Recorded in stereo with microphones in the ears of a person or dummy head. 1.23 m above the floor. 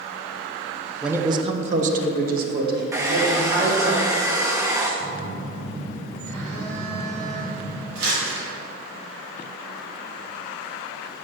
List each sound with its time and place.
1.0 s a man speaking: 5° right (ahead or behind), 0.5 m; by 3.9 s 65° right (ahead or behind), 3 m
2.9 s a hair dryer: 10° right (ahead or behind), 0.9 m
5.0 s a phone buzzing: 15° left (ahead or behind), 1.6 m
8.0 s crumpling: 80° right, 2.5 m